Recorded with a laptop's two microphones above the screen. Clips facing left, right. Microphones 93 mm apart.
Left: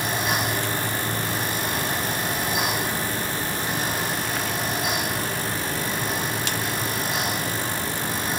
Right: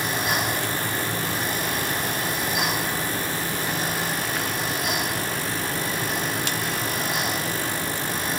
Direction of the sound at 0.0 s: 25° left (ahead or behind).